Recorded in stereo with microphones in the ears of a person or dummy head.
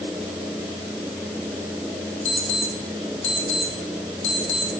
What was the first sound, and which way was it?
An alarm clock, 35° left (ahead or behind).